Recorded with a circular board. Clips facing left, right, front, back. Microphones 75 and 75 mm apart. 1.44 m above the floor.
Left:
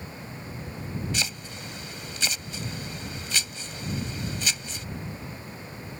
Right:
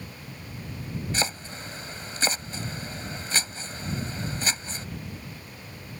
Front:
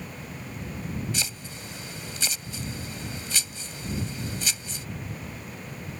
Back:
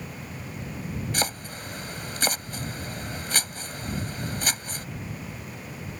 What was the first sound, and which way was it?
Chopping, 140° right.